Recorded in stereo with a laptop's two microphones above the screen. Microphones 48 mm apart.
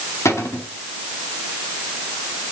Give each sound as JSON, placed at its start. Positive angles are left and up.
{"t": 0.2, "sound": "a cupboard door", "side_deg": 80, "distance_m": 1.7}